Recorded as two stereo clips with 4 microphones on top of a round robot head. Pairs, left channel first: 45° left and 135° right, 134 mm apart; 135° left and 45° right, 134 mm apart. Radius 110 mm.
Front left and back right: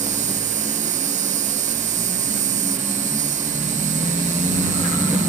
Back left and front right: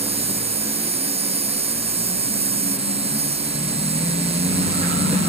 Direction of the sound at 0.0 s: 95° right.